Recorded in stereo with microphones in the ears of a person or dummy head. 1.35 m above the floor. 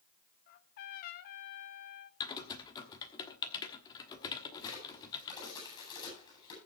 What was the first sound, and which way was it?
A trumpet, 45° left (ahead or behind).